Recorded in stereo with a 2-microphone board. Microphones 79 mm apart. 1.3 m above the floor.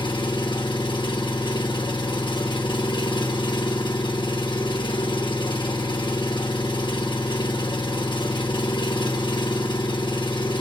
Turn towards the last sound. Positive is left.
turn(degrees=80)